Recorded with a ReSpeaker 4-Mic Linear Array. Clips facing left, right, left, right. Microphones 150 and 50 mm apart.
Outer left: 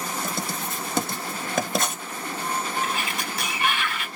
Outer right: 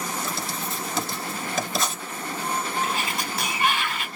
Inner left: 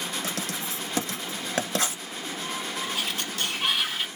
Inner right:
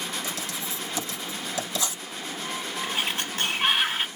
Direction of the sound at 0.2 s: 55° left (ahead or behind).